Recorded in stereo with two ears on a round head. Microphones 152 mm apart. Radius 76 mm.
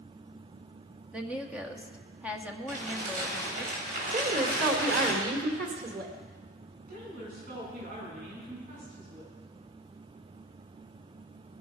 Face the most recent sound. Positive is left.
turn(degrees=-60)  # may be behind; listen again after turning